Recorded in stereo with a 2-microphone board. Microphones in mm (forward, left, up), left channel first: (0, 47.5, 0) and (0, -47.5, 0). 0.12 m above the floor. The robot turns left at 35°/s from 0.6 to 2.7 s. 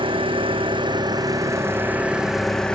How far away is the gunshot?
I don't hear a gunshot.